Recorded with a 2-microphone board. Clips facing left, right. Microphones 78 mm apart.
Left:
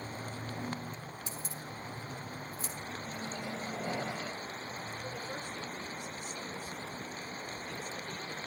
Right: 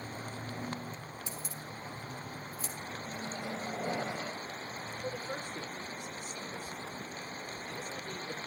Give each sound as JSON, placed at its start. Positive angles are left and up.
{"t": 1.3, "sound": "keys jangling", "side_deg": 25, "distance_m": 2.5}
{"t": 3.0, "sound": "a microwave", "side_deg": -25, "distance_m": 1.1}
{"t": 5.0, "sound": "a man speaking", "side_deg": -50, "distance_m": 5.0}